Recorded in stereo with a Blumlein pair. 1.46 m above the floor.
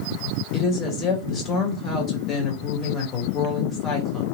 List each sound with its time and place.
0.5 s a woman speaking: 20° left, 1.7 m